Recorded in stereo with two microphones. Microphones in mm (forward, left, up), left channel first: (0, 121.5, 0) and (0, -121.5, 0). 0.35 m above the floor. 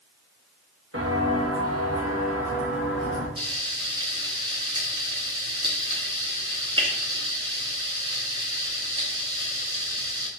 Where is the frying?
20° right (ahead or behind), 1.8 m.